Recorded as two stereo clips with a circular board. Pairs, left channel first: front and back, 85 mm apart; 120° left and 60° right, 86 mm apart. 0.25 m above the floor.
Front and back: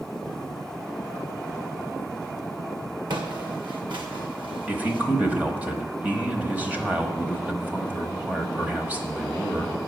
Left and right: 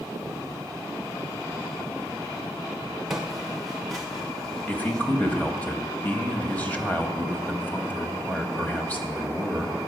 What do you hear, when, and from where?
3.1 s footsteps: 145° right, 1.3 m; by 5.0 s 160° right, 2 m
4.7 s a man speaking: 150° left, 1.1 m